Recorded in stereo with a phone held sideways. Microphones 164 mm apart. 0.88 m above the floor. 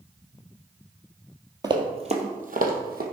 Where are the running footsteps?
25° right (ahead or behind), 1.6 m; by 3.0 s 70° right (ahead or behind), 2 m.